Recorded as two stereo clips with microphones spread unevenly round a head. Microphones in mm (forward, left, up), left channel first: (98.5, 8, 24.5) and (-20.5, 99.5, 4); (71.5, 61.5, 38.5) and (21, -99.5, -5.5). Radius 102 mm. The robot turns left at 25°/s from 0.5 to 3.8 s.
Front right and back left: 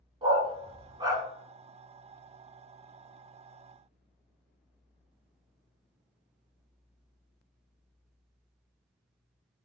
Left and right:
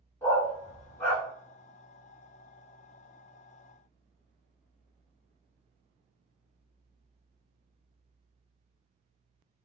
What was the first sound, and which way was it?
A dog barking, 100° left.